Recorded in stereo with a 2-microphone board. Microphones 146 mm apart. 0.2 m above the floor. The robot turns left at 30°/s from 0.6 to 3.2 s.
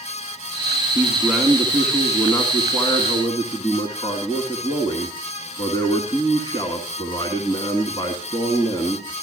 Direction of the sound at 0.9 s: 160° right.